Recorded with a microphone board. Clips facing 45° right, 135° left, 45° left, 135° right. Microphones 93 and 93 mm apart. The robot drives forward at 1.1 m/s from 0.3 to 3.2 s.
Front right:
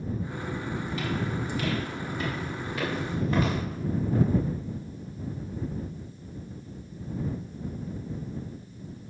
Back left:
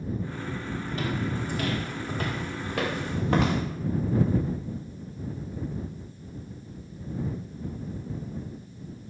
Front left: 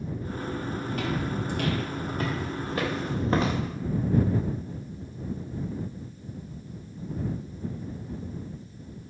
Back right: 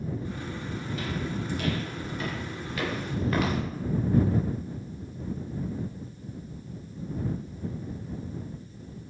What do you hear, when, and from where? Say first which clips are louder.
0.9 s footsteps: back left 2 dB, front left 2 dB; 80° left, 6 m; by 3.6 s 105° left, 4 m